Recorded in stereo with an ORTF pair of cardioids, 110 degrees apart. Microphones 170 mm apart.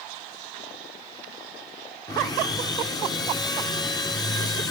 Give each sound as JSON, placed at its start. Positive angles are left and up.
{"t": 2.1, "sound": "sawing", "azimuth_deg": 20, "distance_m": 5.0}